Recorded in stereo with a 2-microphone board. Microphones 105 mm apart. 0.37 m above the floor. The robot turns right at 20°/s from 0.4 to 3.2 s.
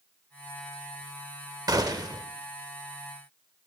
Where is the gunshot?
35° right (ahead or behind), 0.7 m.